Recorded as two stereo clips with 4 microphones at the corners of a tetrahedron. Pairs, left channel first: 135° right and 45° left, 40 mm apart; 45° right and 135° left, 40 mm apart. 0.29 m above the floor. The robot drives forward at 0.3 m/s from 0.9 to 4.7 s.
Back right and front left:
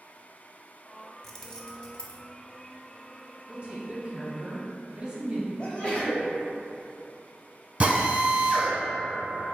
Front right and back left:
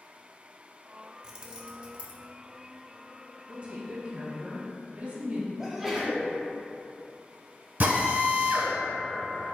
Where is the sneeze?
155° right, 1.2 m.